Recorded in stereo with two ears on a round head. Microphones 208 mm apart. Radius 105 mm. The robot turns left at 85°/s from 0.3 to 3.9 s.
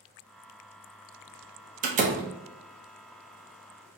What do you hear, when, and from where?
1.8 s a door slam: 35° right (ahead or behind), 0.6 m; by 2.2 s 30° right (ahead or behind), 0.6 m